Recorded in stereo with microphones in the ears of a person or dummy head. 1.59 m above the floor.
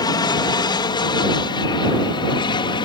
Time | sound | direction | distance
0.0 | an aircraft | 20° left (ahead or behind) | ?